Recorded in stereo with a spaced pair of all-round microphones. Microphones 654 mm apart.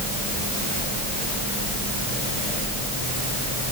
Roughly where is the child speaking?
I don't hear a child speaking.